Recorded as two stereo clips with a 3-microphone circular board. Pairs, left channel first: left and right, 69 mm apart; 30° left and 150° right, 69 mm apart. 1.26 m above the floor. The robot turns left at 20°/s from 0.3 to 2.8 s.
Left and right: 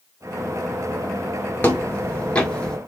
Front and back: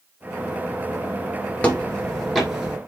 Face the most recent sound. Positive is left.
turn(degrees=145)